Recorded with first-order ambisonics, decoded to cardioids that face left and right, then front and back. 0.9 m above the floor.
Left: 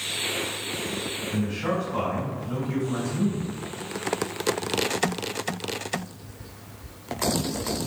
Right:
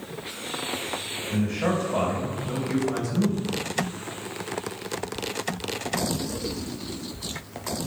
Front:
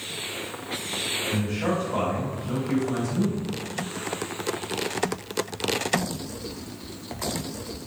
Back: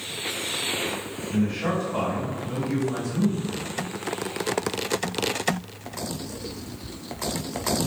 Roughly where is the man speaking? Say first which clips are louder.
Right 3 dB, even; right.